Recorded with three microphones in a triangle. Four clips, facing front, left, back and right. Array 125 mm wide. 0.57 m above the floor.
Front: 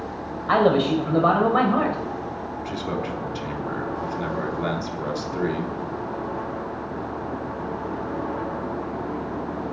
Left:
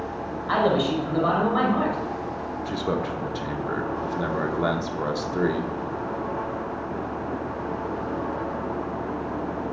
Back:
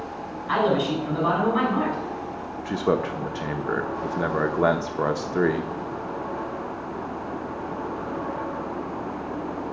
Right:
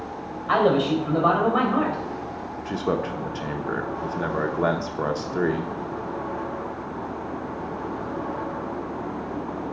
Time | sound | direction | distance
0.5 | a man speaking | 20° right | 3 m
2.6 | a man speaking | 160° right | 1.0 m